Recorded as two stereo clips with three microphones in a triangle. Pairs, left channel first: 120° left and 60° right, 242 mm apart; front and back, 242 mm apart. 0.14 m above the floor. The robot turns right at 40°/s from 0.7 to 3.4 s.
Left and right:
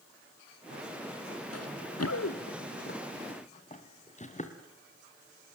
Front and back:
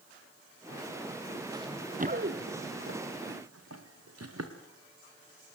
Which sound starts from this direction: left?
Running footsteps, at 1.5 s.